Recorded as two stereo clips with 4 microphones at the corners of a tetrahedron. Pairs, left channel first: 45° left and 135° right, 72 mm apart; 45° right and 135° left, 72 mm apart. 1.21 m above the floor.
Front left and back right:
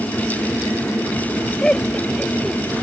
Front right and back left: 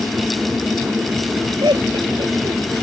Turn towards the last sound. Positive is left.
turn(degrees=125)